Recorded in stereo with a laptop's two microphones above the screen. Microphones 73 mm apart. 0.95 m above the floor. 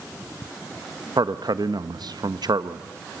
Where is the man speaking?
70° right (ahead or behind), 0.8 m.